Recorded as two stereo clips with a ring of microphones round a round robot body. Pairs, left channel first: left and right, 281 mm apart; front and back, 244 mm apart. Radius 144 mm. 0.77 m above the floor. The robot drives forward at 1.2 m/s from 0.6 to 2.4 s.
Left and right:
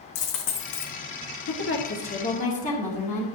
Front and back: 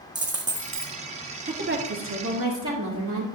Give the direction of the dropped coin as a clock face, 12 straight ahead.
8 o'clock.